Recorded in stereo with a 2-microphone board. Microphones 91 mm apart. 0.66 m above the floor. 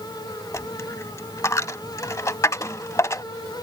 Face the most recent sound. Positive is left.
turn(degrees=35)  # may be behind; listen again after turning